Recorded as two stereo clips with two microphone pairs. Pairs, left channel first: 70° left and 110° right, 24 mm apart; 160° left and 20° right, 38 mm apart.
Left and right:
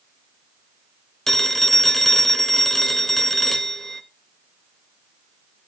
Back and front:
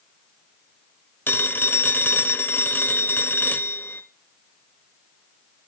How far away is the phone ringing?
About 0.7 m.